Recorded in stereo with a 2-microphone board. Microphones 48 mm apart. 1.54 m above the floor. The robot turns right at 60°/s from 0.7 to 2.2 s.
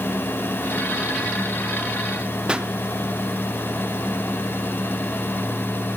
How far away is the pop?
About 0.8 m.